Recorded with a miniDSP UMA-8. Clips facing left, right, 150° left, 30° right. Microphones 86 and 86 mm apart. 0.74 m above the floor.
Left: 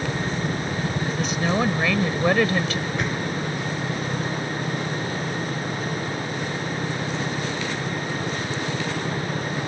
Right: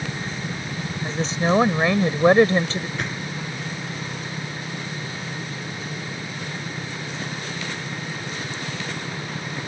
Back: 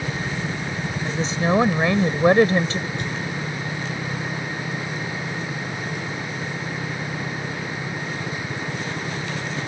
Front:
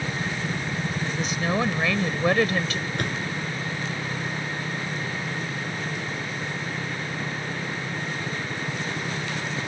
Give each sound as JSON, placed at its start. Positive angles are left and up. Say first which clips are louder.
{"t": 1.0, "sound": "a woman speaking", "louder": "right 5 dB, back 7 dB", "azimuth_deg": -150}
{"t": 3.0, "sound": "a door slam", "louder": "left 4 dB, back 1 dB", "azimuth_deg": 0}